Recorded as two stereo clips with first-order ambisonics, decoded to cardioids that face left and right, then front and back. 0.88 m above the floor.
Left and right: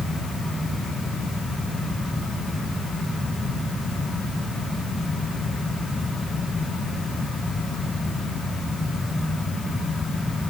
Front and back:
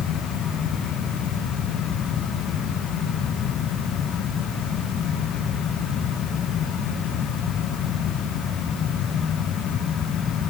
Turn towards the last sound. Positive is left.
No sound to turn to.